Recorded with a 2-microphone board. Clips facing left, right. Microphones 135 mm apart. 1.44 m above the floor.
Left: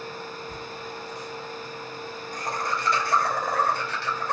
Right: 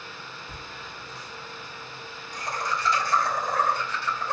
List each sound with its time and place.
0.5 s laughter: 10° right (ahead or behind), 1.0 m; by 4.3 s 65° left (ahead or behind), 2.5 m